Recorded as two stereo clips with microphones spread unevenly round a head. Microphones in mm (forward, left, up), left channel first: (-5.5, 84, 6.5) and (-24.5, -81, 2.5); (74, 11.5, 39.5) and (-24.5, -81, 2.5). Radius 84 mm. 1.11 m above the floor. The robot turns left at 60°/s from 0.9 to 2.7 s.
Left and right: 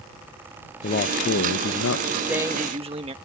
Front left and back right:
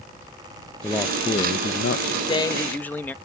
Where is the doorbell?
I don't hear a doorbell.